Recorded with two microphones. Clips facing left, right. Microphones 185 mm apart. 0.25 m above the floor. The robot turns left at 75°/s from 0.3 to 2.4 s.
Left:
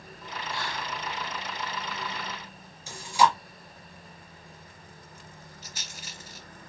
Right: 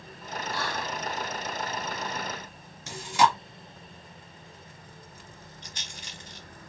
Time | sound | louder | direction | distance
0.5 | whispering | right 3 dB | 45° left | 1.8 m
2.9 | chewing | even | 75° right (ahead or behind) | 1.5 m
5.6 | a rattle | even | 5° left (ahead or behind) | 0.6 m